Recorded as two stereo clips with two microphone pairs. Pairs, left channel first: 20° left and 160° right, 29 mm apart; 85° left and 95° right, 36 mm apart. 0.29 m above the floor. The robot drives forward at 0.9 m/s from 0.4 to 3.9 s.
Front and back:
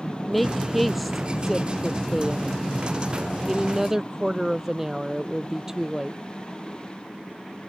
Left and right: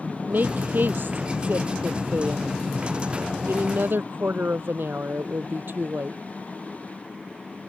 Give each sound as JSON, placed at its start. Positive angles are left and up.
{"t": 0.3, "sound": "a woman speaking", "azimuth_deg": -65}